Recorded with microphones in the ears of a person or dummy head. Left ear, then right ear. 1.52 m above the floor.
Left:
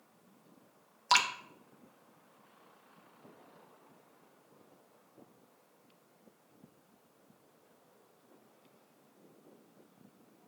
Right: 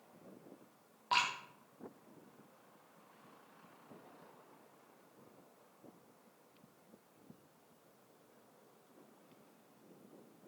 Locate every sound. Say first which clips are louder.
1.1 s dripping: left 6 dB; 70° left (ahead or behind), 1.3 m